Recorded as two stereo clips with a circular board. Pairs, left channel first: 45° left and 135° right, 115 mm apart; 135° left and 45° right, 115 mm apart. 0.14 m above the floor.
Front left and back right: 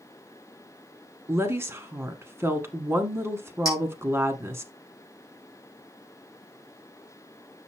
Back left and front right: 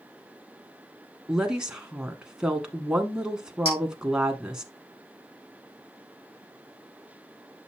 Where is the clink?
105° left, 4.5 m.